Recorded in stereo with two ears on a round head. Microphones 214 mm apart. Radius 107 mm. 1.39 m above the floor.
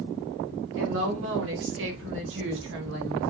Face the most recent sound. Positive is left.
turn(degrees=-50)  # may be behind; listen again after turning